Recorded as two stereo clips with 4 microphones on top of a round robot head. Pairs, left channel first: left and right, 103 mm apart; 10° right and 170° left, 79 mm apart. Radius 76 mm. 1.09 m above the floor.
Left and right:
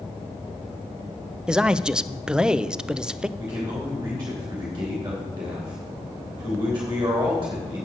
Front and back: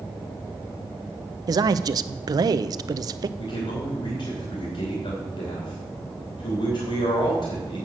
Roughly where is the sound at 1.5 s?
Behind.